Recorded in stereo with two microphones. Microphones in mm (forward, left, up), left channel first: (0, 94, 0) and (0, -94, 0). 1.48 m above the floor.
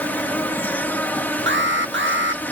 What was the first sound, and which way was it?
An insect, 10° left (ahead or behind).